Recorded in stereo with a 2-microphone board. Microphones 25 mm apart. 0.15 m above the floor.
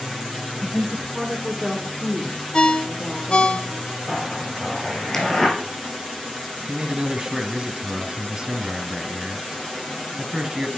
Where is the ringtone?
35° left (ahead or behind), 0.6 m.